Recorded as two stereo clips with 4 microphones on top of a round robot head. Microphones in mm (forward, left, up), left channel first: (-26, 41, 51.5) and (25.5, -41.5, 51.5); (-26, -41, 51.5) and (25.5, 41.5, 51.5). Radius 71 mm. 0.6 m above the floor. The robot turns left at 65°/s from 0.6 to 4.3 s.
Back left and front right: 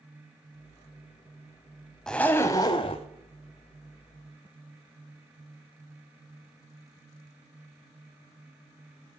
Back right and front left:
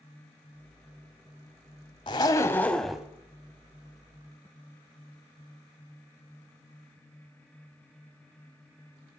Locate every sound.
2.1 s a zipper: 155° right, 0.5 m; by 3.1 s 140° left, 0.5 m